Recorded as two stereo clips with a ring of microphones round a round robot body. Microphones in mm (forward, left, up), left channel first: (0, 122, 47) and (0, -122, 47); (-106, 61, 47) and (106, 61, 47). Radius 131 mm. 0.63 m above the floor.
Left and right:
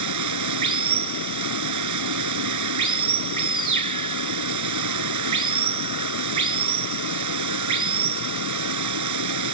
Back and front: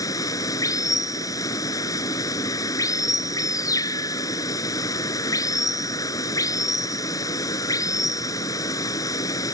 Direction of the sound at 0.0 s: 105° right.